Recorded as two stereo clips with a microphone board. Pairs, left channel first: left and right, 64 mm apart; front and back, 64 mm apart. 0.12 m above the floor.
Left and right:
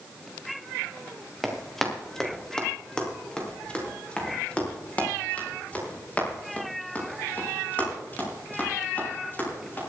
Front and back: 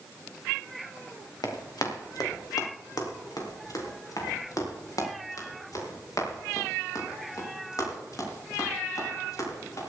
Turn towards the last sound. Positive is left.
turn(degrees=30)